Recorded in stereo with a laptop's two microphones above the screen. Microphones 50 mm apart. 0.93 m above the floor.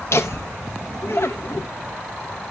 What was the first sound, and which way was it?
Laughter, 60° left (ahead or behind).